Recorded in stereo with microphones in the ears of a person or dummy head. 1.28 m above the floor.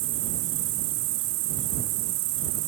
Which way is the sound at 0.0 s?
75° right (ahead or behind).